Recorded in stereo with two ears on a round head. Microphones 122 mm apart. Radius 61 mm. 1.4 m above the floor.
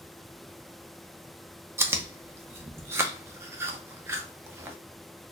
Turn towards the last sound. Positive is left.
turn(degrees=-20)  # may be behind; listen again after turning